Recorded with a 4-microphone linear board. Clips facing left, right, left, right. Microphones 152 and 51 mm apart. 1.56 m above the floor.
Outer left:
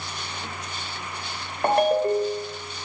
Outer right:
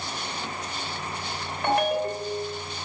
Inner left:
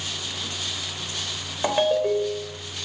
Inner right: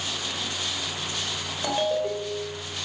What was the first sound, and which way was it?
A ringtone, 40° left (ahead or behind).